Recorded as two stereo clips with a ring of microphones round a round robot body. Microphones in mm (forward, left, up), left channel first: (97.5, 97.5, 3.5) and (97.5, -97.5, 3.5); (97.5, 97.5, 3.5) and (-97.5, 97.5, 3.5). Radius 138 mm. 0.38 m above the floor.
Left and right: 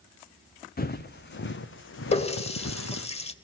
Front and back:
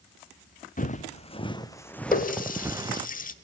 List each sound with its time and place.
0.8 s footsteps: 50° left, 1.3 m; by 3.1 s 115° left, 1.1 m
2.1 s a running tap: 35° left, 1.0 m